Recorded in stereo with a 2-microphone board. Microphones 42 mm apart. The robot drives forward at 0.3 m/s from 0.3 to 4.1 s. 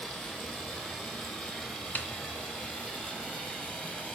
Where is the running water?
30° left (ahead or behind), 5 m; by 4.2 s 35° left (ahead or behind), 4 m.